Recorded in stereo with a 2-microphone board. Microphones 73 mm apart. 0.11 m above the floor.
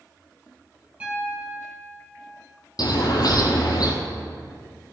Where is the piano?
20° right (ahead or behind), 3.5 m.